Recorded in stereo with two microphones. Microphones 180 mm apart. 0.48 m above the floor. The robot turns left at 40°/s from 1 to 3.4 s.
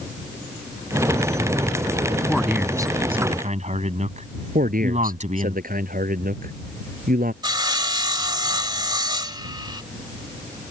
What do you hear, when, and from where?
2.3 s a man speaking: 5° left; by 5.5 s 40° right
4.5 s a man speaking: 50° right (ahead or behind)
7.4 s sawing: 25° right (ahead or behind)